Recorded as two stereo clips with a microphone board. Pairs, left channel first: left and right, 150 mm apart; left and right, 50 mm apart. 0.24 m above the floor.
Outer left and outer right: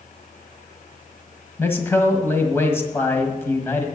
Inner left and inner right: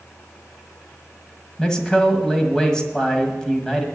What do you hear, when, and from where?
1.6 s a man speaking: 15° left (ahead or behind), 1.5 m